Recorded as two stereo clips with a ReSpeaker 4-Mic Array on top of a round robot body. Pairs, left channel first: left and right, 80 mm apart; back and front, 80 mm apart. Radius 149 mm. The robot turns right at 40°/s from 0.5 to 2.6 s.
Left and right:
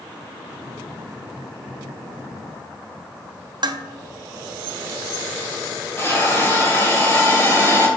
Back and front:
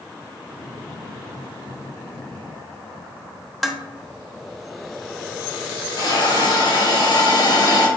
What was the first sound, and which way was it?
Dishes clattering, 90° right.